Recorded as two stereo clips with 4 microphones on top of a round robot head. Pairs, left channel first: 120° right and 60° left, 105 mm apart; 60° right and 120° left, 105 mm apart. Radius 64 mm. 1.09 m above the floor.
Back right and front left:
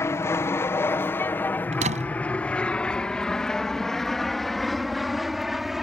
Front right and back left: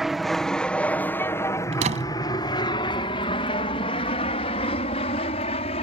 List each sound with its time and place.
0.0 s an aircraft: 155° right; by 5.8 s 30° right
1.7 s a door slam: 90° left